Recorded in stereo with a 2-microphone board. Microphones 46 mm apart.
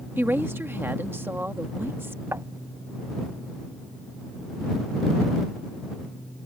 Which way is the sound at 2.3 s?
75° right (ahead or behind).